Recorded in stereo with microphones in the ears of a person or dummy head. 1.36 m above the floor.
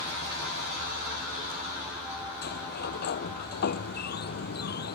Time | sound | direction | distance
2.4 | a sliding door | 55° left (ahead or behind) | ?